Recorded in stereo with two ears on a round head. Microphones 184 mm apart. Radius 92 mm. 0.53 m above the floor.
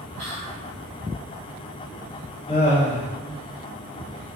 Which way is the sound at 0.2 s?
65° right (ahead or behind).